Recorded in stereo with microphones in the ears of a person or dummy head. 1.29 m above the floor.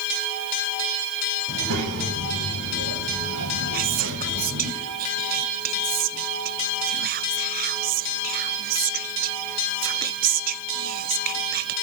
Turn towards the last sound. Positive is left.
turn(degrees=-40)  # may be behind; listen again after turning